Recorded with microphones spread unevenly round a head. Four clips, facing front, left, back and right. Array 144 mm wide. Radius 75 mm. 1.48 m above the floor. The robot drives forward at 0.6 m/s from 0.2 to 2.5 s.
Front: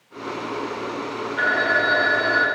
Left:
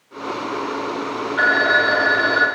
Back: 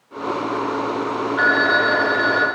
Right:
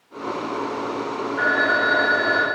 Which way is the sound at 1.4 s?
90° left.